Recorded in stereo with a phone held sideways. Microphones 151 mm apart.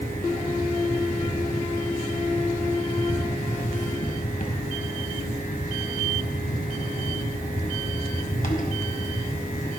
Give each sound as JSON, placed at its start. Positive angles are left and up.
{"t": 0.0, "sound": "a fan", "side_deg": 70, "distance_m": 1.4}